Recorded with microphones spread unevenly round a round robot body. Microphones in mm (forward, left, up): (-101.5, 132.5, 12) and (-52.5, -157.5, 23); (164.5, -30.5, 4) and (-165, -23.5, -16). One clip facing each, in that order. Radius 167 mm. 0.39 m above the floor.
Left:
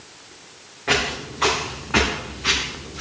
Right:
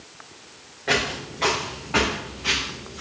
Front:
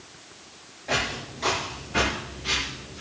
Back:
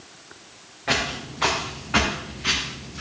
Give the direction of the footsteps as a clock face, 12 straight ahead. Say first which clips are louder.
Left 1 dB, back 2 dB; 6 o'clock.